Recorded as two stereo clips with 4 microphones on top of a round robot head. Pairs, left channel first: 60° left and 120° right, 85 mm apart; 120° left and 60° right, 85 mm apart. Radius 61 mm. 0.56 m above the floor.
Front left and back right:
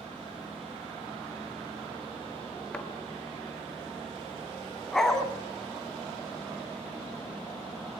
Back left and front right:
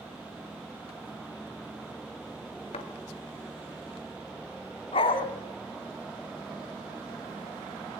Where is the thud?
140° left, 2.5 m.